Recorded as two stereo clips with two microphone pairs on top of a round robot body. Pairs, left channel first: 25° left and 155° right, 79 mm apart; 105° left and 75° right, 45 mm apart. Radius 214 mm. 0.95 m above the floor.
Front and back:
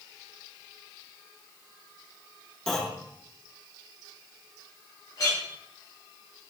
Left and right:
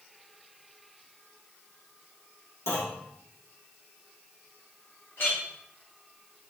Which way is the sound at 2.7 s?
105° left.